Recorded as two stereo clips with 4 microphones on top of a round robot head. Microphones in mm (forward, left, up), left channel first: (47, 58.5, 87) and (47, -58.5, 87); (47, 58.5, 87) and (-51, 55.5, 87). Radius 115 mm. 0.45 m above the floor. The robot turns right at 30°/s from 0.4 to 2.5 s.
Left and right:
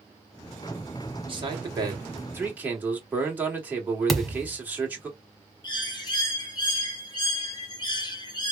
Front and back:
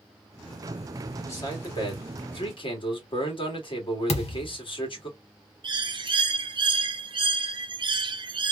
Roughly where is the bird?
Behind left.